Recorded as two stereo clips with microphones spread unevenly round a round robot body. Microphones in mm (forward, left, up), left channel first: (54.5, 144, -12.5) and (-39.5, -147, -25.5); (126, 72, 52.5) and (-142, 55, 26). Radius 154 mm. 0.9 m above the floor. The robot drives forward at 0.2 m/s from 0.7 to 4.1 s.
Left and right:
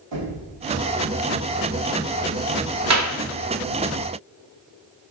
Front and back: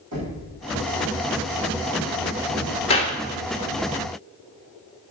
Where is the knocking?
135° right, 5 m.